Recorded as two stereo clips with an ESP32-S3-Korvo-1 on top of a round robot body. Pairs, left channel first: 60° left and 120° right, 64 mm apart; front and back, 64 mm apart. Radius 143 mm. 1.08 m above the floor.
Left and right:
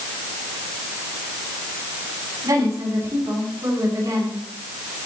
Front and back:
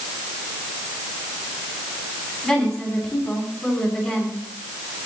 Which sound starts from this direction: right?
A woman speaking, at 2.4 s.